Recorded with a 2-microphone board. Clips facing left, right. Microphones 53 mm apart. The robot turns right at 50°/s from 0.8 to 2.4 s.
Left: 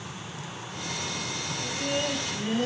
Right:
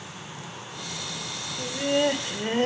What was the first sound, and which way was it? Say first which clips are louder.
Laughter: right 7 dB; 125° right.